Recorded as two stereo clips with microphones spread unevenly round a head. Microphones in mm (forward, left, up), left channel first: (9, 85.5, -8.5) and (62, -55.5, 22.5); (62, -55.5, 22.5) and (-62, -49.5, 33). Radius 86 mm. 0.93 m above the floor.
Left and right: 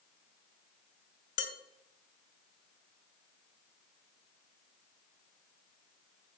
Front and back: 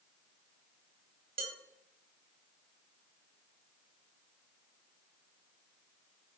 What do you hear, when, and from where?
1.4 s dishes clattering: 120° left, 1.9 m